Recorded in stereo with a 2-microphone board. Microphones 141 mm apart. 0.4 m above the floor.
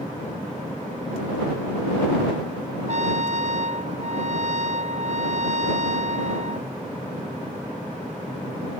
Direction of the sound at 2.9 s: 55° right (ahead or behind).